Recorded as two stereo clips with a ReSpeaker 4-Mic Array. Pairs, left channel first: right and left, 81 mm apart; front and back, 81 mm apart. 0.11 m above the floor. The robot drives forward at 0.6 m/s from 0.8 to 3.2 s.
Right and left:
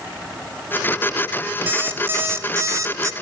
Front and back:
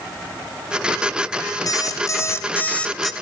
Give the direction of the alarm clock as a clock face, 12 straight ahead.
11 o'clock.